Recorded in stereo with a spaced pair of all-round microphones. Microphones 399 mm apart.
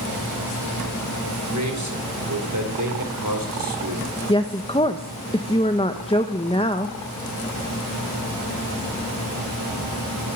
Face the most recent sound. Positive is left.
turn(degrees=15)  # may be behind; listen again after turning